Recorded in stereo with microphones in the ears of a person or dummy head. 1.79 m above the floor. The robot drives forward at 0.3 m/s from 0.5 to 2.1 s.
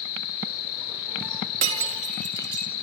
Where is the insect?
85° left, 9.5 m.